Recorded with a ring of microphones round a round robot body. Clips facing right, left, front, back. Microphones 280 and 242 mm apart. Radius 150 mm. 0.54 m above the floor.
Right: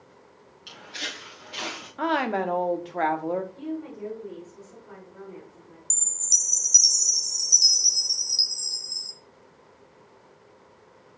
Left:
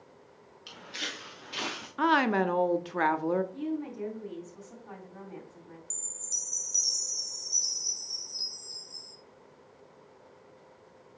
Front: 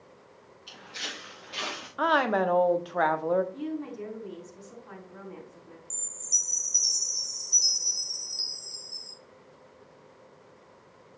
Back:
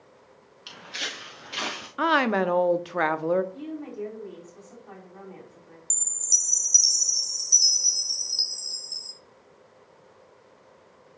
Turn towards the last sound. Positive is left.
turn(degrees=-140)